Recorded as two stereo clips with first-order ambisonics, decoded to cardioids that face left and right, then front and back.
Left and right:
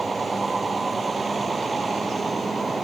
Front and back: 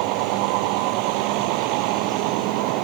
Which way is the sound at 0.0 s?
170° right.